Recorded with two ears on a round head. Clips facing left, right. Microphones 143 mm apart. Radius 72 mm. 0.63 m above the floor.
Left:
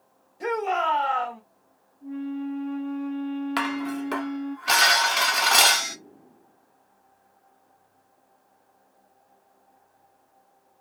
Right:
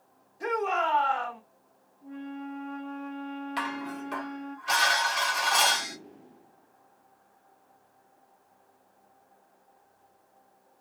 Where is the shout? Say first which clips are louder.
Left 3 dB; 30° left (ahead or behind), 2.5 m.